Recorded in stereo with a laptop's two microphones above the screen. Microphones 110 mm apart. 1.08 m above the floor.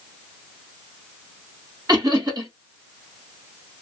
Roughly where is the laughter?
Right.